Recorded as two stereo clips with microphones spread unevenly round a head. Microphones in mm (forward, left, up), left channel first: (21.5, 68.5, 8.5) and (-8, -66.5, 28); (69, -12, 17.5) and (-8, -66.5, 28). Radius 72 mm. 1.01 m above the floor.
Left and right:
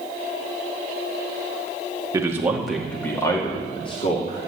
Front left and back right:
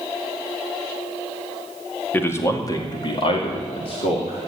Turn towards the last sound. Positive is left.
turn(degrees=40)